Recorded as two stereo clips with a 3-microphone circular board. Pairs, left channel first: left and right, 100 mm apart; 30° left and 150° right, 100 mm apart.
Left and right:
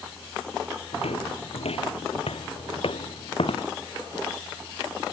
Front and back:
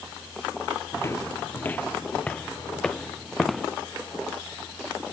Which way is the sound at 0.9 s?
95° left.